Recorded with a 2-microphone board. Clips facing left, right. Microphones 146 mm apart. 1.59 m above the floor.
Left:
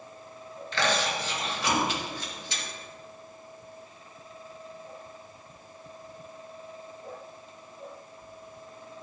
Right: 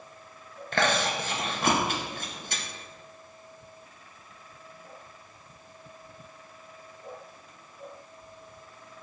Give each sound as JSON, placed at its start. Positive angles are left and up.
{"t": 0.7, "sound": "chewing", "side_deg": -50, "distance_m": 1.6}